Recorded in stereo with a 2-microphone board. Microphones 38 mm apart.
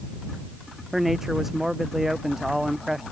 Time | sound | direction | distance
0.9 | a man speaking | 5° right (ahead or behind) | ?